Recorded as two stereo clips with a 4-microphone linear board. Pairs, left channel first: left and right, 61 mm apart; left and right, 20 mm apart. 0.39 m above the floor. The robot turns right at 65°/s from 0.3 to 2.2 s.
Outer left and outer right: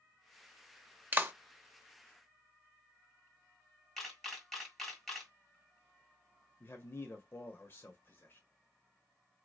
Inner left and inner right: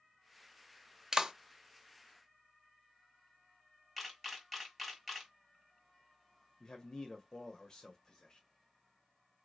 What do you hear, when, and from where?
1.1 s a clap: 35° right (ahead or behind), 0.8 m; by 1.3 s 40° right (ahead or behind), 0.8 m
4.0 s a camera shutter: 5° left (ahead or behind), 2 m
6.6 s a man speaking: 35° left (ahead or behind), 1.1 m